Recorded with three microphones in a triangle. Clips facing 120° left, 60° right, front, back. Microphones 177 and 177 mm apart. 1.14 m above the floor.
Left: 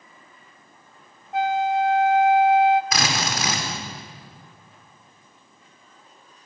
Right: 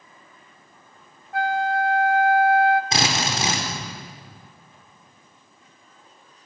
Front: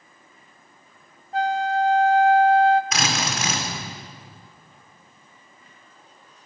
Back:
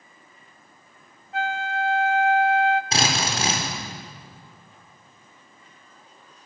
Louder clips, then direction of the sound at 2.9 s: Right 1 dB, back 1 dB; 120° right.